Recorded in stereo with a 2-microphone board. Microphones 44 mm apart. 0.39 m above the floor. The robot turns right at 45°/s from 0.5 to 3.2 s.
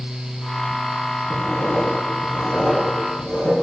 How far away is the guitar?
No guitar in this recording.